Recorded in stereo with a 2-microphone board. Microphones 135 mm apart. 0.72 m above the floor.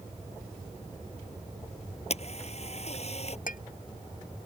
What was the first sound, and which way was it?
A camera shutter, 50° left (ahead or behind).